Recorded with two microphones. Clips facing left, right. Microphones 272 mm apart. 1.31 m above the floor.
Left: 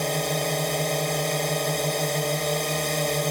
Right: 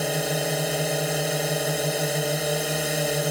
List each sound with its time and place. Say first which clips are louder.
0.0 s a drone: right 1 dB; 5° right (ahead or behind)